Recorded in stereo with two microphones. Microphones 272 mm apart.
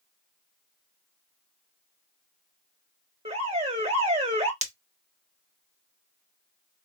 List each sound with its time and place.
3.2 s an alarm: 20° right (ahead or behind), 1.1 m
4.6 s breaking glass: 25° right (ahead or behind), 0.7 m